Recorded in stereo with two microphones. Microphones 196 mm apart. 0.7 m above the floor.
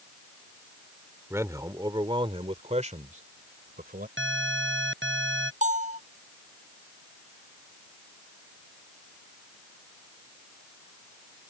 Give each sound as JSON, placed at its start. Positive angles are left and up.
{"t": 1.3, "sound": "a man speaking", "side_deg": -10}
{"t": 4.2, "sound": "an alarm", "side_deg": -85}
{"t": 5.6, "sound": "a bell", "side_deg": -40}